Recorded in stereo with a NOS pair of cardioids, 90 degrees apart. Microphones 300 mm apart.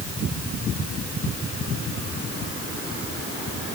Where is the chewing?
I don't hear chewing.